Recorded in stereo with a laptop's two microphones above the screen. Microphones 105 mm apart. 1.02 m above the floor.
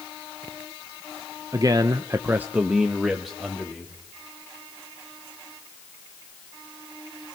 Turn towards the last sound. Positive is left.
turn(degrees=0)  # may be behind; listen again after turning